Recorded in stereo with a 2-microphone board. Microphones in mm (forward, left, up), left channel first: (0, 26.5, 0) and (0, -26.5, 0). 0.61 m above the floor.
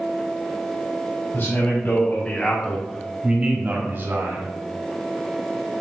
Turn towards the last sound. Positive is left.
turn(degrees=-60)  # may be behind; listen again after turning